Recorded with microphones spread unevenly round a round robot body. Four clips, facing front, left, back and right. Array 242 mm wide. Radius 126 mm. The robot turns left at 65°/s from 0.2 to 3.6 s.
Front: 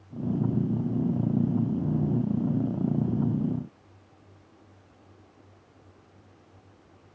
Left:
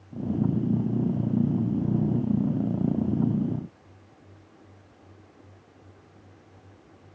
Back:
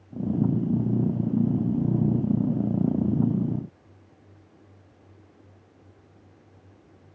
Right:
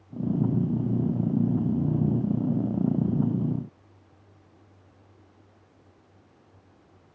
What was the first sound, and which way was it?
Only background noise.